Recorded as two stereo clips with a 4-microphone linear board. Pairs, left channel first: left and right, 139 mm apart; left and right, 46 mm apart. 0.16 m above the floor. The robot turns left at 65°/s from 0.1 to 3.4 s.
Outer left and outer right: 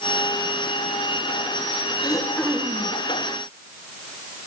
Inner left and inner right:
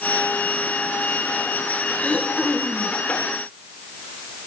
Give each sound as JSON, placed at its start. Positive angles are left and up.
{"t": 2.0, "sound": "throat clearing", "azimuth_deg": 35, "distance_m": 4.0}